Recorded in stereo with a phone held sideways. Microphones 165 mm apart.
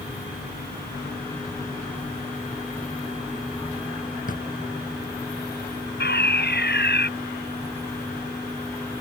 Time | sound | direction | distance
4.3 | a drawer | 55° left (ahead or behind) | ?
6.0 | a fire alarm | 85° left | ?